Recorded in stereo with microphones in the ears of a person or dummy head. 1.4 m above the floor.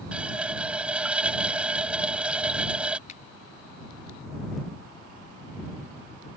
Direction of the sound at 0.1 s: 10° right (ahead or behind).